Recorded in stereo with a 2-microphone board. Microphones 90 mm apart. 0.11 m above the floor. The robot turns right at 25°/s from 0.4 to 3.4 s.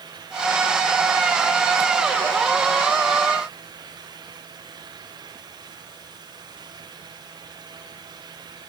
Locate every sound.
Only background noise.